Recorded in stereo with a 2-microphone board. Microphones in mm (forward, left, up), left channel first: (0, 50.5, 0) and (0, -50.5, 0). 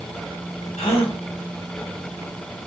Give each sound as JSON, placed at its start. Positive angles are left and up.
{"t": 0.8, "sound": "a gasp", "side_deg": 80, "distance_m": 0.7}